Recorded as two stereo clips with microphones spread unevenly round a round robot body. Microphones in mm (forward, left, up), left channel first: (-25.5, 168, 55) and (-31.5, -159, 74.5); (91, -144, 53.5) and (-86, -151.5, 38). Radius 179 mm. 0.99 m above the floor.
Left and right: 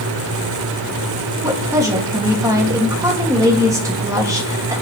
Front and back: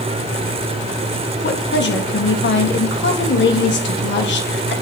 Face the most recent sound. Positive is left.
turn(degrees=-10)